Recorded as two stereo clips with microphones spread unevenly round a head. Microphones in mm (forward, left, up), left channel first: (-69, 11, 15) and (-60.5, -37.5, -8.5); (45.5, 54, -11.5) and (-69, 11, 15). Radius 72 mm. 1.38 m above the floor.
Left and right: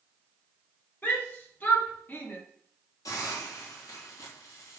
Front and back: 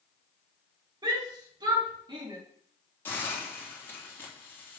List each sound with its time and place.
1.0 s a shout: 145° left, 4 m
3.0 s a hiss: 95° left, 3 m